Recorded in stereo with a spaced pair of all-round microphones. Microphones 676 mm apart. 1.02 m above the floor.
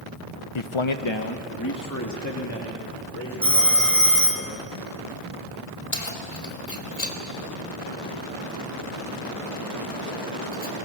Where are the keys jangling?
75° left (ahead or behind), 2.5 m.